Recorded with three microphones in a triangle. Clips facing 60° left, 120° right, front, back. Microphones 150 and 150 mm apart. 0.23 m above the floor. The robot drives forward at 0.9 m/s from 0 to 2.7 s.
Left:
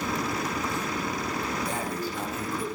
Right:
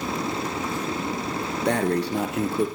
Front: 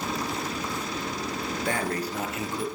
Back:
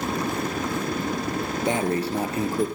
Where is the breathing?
110° right, 1.9 m; by 2.7 s 135° right, 2.5 m.